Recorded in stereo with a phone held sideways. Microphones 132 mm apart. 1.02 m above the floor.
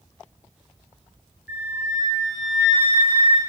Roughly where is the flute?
Centre.